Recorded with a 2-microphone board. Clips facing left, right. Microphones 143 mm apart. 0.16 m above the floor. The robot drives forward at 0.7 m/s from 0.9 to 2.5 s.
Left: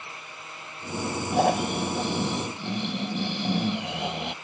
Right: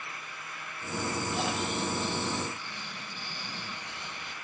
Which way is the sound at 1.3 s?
50° left (ahead or behind).